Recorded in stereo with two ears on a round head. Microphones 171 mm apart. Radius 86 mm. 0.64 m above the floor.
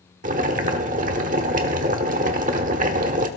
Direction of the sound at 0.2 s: 40° right (ahead or behind).